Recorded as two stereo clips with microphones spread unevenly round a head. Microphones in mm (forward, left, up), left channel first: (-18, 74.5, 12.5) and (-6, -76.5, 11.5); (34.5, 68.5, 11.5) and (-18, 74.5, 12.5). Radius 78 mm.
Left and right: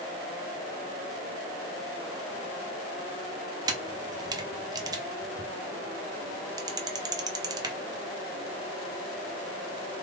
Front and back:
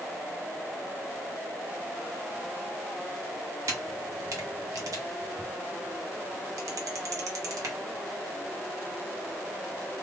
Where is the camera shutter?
150° right, 0.7 m.